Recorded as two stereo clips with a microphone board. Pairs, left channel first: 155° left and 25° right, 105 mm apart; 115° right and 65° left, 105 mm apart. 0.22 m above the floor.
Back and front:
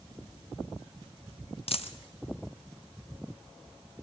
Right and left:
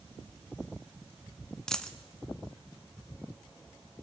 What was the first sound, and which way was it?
A dropped coin, 165° left.